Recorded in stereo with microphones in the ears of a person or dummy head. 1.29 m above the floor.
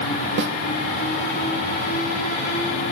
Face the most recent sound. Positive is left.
turn(degrees=-65)  # may be behind; listen again after turning